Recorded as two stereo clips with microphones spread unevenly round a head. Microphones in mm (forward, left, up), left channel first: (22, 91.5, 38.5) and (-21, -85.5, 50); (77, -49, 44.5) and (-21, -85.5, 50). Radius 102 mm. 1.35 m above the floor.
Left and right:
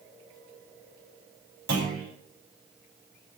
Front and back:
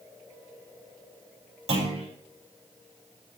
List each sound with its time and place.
1.7 s a clunk: 145° right, 7.5 m